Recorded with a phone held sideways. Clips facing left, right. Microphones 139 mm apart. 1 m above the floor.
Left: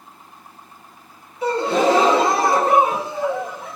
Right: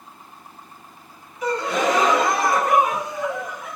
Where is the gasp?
30° left (ahead or behind), 0.5 m.